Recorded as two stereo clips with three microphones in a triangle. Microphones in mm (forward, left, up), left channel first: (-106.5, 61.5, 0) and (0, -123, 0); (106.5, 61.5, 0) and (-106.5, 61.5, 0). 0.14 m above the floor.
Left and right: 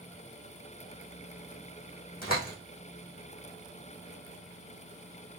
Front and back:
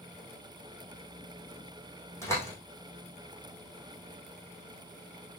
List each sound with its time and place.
2.2 s a door slam: 75° left, 4.5 m